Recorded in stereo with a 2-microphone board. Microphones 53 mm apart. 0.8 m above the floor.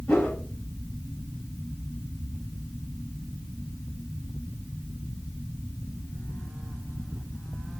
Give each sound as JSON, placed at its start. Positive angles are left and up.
{"t": 0.1, "sound": "a whoosh", "side_deg": 25, "distance_m": 2.5}